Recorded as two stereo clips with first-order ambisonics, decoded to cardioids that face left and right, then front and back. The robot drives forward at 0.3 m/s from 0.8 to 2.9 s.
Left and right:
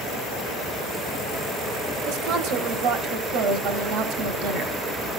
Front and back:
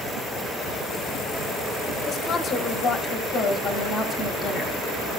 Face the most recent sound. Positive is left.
turn(degrees=-75)